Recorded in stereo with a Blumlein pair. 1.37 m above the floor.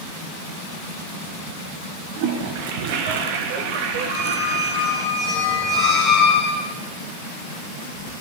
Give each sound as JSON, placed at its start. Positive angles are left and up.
{"t": 2.2, "sound": "a toilet flushing", "azimuth_deg": -45, "distance_m": 0.8}
{"t": 4.1, "sound": "a squeak", "azimuth_deg": 30, "distance_m": 3.5}